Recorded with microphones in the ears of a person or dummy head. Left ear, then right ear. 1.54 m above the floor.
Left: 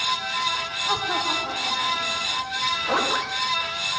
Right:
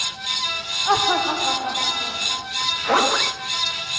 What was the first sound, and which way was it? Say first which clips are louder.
Laughter: right 6 dB; 25° right (ahead or behind).